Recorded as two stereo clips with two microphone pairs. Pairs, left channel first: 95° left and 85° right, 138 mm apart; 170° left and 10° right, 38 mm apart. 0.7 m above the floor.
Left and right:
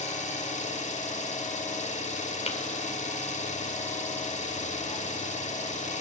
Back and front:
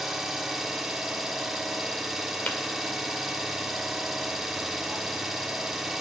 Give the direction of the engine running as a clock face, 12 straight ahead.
9 o'clock.